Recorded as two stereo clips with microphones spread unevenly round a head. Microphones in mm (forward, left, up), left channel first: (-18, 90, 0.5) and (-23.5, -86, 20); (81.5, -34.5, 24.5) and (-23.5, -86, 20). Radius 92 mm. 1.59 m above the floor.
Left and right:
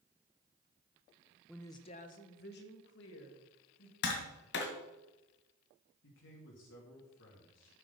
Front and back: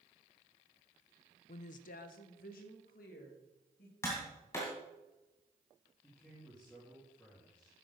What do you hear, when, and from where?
1.5 s a woman speaking: 5° right, 0.7 m; by 3.9 s 60° left, 3 m
4.0 s tapping: 95° left, 2 m
6.0 s a man speaking: 110° left, 3 m